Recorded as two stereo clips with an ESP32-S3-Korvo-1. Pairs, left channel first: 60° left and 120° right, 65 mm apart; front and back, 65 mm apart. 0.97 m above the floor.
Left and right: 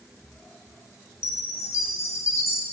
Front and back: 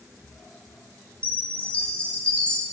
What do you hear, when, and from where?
1.2 s a chime: 65° left, 0.5 m